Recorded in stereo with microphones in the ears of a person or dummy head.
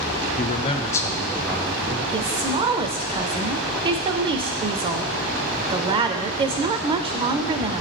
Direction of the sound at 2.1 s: 25° right (ahead or behind).